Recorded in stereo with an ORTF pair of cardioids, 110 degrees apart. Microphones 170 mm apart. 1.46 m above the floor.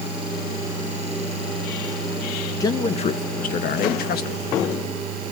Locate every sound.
2.6 s a man speaking: 20° left, 1.1 m; by 4.5 s 70° left, 2 m